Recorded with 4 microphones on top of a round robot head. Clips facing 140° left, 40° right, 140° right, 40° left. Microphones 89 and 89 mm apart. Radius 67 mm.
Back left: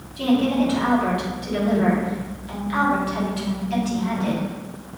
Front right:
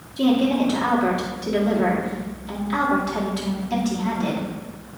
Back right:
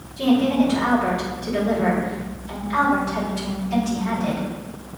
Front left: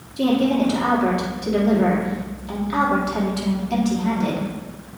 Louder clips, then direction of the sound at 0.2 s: Front right 1 dB, even; 20° left.